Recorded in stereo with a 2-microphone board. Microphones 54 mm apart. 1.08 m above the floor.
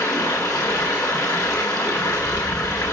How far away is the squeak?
I don't hear a squeak.